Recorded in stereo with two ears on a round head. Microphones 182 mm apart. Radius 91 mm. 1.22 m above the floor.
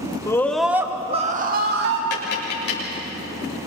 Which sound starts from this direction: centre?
A scream, at 0.3 s.